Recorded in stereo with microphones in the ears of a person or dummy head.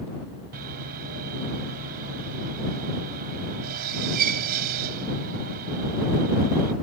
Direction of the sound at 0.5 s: 55° right (ahead or behind).